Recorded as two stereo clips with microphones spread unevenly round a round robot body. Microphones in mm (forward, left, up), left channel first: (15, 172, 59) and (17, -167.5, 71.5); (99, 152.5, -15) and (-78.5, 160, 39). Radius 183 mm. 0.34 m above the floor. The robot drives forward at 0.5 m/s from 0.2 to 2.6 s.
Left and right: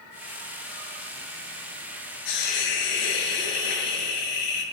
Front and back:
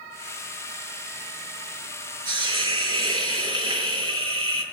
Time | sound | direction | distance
2.2 | a hiss | 110° left | 5 m